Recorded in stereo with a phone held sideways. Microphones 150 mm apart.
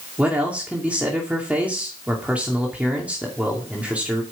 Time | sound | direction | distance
0.2 | a man speaking | 10° right (ahead or behind) | 2.5 m